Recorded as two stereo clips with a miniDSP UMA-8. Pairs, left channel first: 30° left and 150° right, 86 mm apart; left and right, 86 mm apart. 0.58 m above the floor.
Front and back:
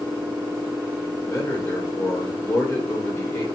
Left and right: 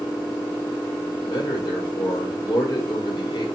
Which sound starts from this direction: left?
A man speaking, at 1.2 s.